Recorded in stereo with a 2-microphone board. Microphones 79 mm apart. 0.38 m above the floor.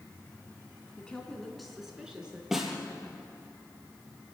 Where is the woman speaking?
15° left (ahead or behind), 3 m; by 2.4 s 10° right (ahead or behind), 4.5 m.